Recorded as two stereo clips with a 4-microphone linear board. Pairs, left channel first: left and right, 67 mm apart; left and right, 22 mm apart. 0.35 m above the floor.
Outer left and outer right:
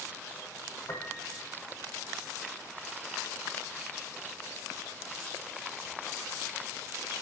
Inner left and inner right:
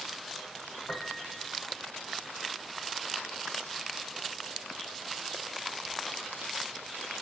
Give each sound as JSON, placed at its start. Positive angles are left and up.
{"t": 0.9, "sound": "a piano", "side_deg": 55, "distance_m": 5.5}